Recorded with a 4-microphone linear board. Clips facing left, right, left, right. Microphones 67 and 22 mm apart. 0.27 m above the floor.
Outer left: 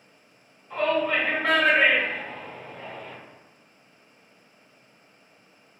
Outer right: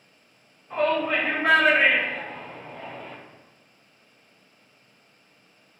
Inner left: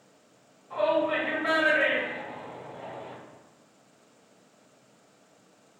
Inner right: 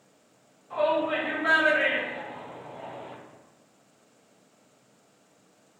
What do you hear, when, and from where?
0.7 s a shout: 20° right (ahead or behind), 1.3 m